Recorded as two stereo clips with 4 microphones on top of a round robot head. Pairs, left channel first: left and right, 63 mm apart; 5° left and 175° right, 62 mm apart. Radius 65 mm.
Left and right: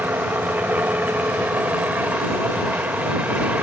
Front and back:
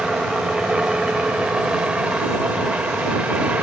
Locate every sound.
0.0 s a helicopter: 110° right; by 3.6 s 130° right